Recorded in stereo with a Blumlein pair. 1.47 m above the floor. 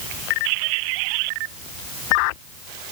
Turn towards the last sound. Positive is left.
No sound to turn to.